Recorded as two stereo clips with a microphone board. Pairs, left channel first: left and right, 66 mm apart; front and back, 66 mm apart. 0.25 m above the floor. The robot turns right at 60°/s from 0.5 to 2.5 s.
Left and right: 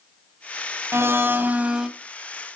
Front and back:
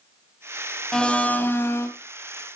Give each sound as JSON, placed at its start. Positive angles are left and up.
{"t": 0.9, "sound": "a blender", "azimuth_deg": -75, "distance_m": 1.4}